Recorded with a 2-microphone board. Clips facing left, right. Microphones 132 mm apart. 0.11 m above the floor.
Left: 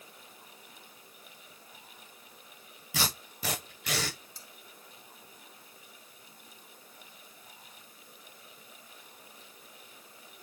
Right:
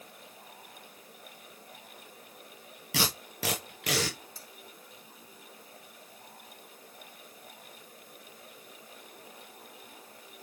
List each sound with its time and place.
2.9 s tape being pulled: 80° right, 4.5 m
4.3 s cutlery clinking: 20° left (ahead or behind), 3.5 m